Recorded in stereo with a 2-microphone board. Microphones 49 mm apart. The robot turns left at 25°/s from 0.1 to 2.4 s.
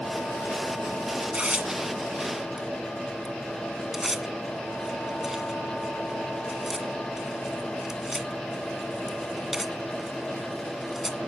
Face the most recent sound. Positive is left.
turn(degrees=-10)  # may be behind; listen again after turning